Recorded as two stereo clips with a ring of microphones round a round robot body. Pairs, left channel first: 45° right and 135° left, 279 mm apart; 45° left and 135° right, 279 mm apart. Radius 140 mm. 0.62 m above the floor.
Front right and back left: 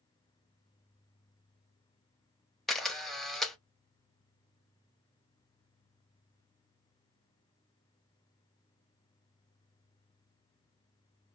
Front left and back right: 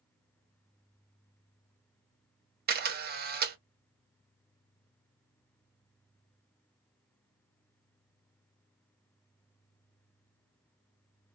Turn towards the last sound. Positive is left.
turn(degrees=-135)